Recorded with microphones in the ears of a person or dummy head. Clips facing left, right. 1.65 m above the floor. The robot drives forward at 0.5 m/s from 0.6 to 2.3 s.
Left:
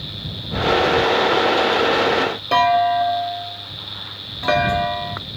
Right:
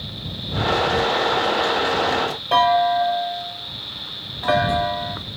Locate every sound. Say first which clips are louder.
2.5 s a clunk: left 1 dB; 30° left (ahead or behind), 0.6 m